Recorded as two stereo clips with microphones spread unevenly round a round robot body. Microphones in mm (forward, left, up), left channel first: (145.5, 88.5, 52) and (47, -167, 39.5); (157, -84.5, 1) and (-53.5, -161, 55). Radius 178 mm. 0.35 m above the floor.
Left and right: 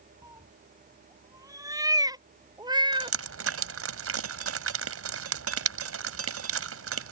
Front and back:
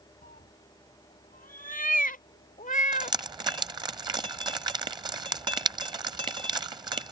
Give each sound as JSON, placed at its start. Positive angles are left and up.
{"t": 0.2, "sound": "a cat meowing", "azimuth_deg": -30}
{"t": 2.9, "sound": "dripping", "azimuth_deg": -85}